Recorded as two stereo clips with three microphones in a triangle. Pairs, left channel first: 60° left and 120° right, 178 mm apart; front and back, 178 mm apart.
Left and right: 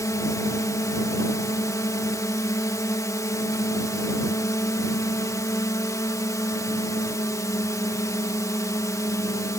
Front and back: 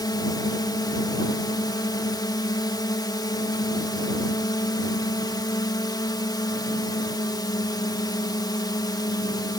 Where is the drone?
20° left.